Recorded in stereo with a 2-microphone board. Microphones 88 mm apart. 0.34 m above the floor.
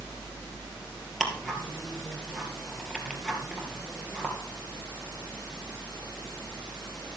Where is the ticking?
5° left (ahead or behind), 2 m.